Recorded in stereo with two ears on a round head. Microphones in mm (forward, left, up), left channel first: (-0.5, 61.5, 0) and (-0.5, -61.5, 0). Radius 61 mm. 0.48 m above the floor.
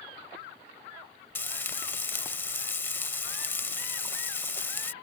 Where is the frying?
15° left (ahead or behind).